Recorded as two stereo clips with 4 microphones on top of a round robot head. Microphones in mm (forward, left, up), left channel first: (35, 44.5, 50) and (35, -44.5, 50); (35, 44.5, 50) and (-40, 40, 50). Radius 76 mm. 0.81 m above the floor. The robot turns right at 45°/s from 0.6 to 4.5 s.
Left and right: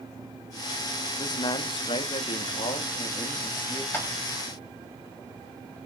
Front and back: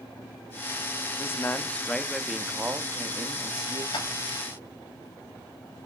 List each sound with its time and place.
1.2 s a man speaking: 50° left, 1.4 m; by 3.8 s 170° left, 1.4 m
3.9 s tapping: 25° left, 5.5 m; by 4.1 s 30° left, 5.5 m